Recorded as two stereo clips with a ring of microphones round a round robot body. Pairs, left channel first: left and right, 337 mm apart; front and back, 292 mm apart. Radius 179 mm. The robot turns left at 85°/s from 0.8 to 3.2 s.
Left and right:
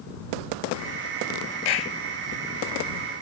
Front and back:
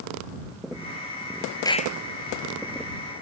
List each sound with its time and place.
1.6 s a clap: 80° left; by 1.9 s 55° left